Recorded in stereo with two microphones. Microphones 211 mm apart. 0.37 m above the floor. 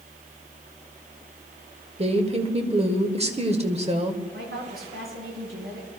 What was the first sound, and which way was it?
A woman speaking, 30° right (ahead or behind).